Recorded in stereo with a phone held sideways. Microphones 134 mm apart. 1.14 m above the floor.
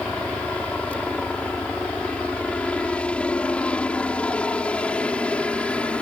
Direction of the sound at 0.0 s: 10° left (ahead or behind).